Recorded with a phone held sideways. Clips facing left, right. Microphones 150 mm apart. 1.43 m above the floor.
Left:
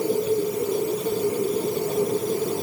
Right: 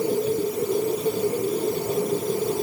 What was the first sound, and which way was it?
Only background noise.